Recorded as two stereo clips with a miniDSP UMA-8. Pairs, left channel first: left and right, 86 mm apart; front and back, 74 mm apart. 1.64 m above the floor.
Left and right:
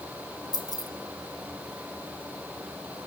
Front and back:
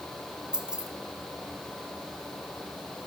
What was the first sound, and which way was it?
Keys jangling, 105° left.